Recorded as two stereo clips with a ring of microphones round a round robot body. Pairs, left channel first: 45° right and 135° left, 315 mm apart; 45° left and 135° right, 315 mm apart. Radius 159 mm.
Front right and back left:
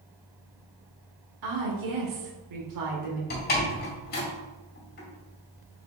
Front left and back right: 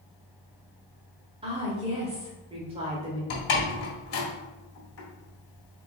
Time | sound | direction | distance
1.4 | a woman speaking | 155° left | 1.5 m
3.3 | a door slam | 15° left | 1.8 m